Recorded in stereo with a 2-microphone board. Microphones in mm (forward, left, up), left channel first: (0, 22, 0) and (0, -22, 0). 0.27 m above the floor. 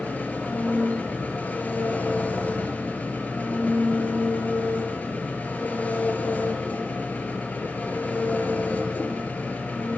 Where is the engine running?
35° left (ahead or behind), 4.5 m.